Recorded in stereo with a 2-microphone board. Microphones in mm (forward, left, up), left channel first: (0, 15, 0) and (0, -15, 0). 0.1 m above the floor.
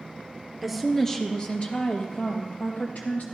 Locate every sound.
0.6 s a woman speaking: centre (ahead or behind), 1.9 m; by 3.2 s 65° left (ahead or behind), 3.5 m